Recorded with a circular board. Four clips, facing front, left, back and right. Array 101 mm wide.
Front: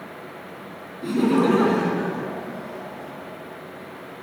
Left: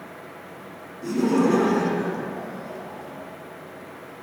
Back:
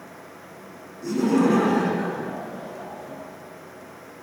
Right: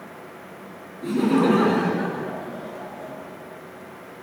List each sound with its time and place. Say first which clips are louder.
1.0 s laughter: right 1 dB, front 1 dB; 25° right, 1.1 m; by 3.1 s 95° right, 1.7 m